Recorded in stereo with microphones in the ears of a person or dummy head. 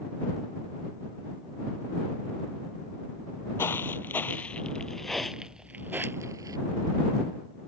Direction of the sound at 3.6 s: 15° left (ahead or behind).